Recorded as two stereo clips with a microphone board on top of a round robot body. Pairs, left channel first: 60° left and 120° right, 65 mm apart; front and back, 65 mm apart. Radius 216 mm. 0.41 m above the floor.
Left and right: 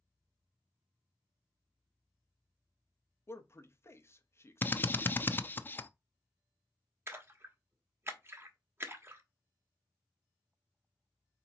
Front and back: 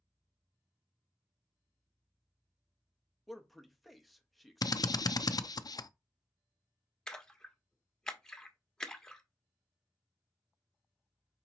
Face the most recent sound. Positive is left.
turn(degrees=-80)